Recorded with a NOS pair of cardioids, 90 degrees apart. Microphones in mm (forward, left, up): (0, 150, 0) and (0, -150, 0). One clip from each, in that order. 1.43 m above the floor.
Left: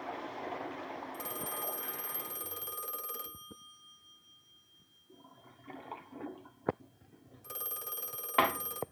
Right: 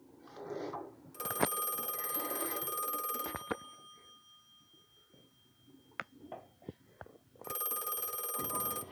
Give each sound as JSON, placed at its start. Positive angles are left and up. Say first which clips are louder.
{"t": 1.1, "sound": "a phone ringing", "louder": "right 6 dB", "azimuth_deg": -10, "distance_m": 0.9}